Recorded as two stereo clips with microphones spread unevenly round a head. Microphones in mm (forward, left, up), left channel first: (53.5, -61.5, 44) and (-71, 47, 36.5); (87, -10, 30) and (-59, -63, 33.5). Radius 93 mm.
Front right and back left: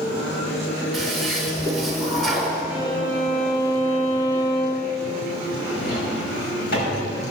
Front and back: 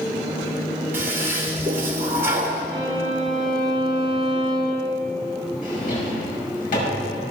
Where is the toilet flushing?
125° right, 1.4 m.